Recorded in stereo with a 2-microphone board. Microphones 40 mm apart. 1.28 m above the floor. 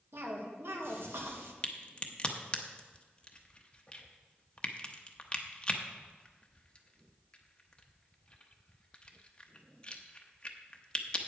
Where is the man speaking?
I don't hear a man speaking.